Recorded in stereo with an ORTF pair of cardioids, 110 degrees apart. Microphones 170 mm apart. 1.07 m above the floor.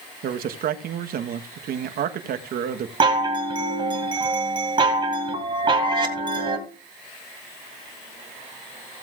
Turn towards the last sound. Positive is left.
turn(degrees=-30)